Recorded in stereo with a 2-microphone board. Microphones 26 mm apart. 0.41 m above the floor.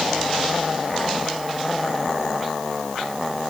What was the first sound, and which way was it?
Only background noise.